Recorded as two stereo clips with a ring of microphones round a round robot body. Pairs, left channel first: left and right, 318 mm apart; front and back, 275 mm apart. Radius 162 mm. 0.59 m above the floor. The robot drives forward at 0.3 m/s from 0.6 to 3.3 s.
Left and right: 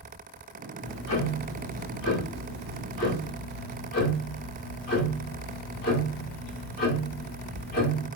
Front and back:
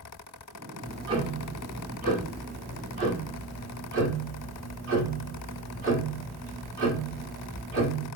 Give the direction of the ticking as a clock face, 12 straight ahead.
8 o'clock.